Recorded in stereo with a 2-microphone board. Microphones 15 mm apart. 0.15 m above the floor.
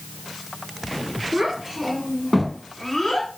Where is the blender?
No blender in this recording.